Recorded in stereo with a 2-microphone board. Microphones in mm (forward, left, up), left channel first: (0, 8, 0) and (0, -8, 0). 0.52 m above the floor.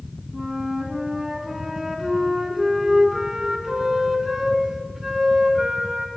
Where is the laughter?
I don't hear laughter.